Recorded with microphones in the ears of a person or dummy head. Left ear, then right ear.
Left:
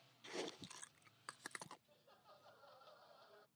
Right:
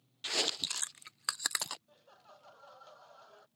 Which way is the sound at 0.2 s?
50° right (ahead or behind).